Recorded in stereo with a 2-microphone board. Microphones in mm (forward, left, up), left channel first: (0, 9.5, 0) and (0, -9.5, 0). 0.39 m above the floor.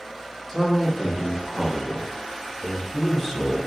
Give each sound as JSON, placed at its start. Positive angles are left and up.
{"t": 0.5, "sound": "a man speaking", "side_deg": -10, "distance_m": 1.3}